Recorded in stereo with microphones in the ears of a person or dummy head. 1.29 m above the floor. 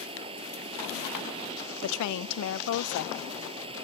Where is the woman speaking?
75° left (ahead or behind).